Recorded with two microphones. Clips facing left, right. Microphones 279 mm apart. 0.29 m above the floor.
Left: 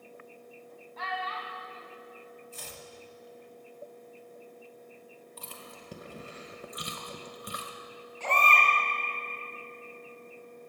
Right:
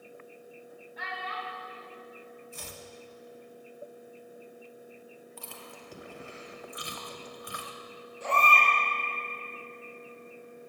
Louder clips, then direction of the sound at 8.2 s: Right 1 dB; 80° left.